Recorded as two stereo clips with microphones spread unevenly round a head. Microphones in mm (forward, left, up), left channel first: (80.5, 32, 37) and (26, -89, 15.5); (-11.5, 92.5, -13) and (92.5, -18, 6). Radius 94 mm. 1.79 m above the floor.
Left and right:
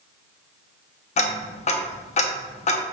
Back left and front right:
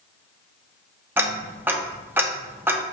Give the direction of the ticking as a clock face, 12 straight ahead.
11 o'clock.